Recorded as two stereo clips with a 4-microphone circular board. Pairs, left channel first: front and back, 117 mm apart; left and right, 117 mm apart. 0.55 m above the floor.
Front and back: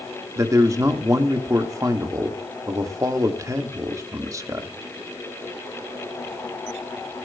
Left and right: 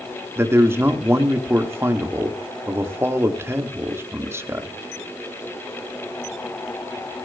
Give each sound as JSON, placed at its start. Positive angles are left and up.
{"t": 0.4, "sound": "a man speaking", "azimuth_deg": -140, "distance_m": 1.4}